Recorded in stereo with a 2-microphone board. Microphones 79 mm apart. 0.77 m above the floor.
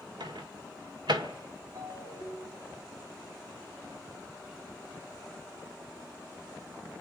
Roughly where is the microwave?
Right.